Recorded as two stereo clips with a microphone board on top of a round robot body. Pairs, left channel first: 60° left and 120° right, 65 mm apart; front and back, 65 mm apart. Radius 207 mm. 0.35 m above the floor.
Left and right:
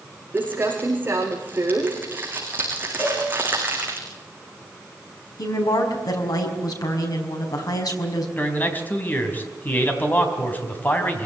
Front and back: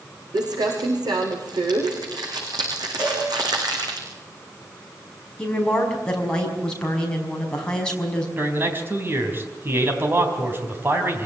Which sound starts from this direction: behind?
Crumpling, at 0.3 s.